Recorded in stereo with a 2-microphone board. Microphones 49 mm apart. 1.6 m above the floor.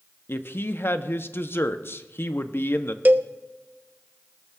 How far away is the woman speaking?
About 0.8 m.